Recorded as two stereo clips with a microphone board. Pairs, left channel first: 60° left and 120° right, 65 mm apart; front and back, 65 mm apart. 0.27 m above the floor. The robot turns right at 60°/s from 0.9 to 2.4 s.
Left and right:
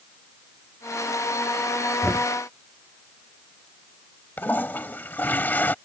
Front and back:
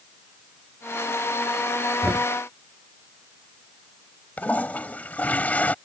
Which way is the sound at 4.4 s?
40° left.